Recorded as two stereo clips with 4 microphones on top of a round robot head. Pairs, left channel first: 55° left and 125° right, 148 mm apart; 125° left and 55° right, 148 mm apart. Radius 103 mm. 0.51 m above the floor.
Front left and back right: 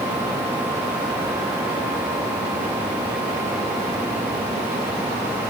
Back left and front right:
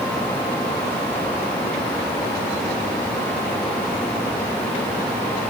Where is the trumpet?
No trumpet in this recording.